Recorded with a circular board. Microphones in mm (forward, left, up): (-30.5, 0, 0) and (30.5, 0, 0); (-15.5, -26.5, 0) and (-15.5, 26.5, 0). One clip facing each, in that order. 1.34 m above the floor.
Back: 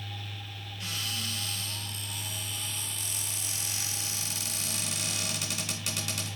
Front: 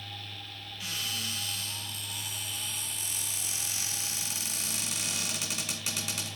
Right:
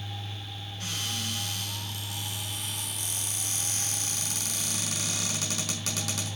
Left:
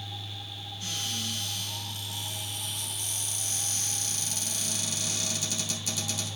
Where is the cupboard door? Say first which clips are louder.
Even, right 1 dB; 90° right, 3.5 m.